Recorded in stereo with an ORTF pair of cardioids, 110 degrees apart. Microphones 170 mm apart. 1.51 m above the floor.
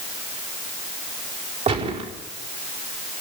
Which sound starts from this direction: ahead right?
A gunshot, at 1.7 s.